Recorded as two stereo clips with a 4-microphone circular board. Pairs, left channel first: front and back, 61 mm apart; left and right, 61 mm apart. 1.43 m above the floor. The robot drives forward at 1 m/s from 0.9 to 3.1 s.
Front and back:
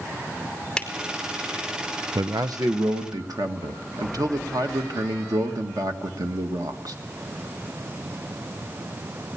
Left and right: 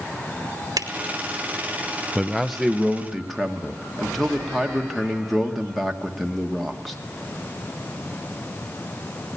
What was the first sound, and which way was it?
A finger snap, 75° right.